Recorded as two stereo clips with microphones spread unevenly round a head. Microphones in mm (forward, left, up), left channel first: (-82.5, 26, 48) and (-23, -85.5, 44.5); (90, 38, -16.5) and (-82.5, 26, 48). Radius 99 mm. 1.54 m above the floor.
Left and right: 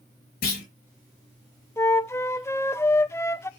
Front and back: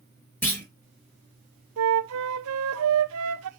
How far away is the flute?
About 0.7 m.